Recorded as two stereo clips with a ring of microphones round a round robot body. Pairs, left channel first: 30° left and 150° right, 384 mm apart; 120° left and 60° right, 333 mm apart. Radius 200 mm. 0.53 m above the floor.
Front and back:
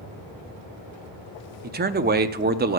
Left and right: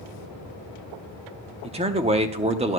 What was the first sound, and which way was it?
A man speaking, 110° right.